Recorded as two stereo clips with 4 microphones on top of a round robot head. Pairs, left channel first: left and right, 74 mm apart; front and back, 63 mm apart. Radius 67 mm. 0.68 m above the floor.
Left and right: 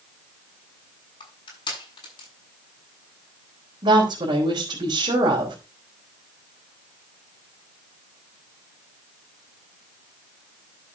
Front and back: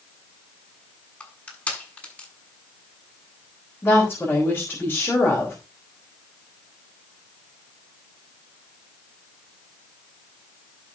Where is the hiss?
No hiss in this recording.